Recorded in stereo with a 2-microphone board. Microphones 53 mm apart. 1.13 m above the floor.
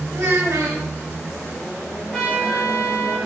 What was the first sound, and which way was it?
A child speaking, 70° right (ahead or behind).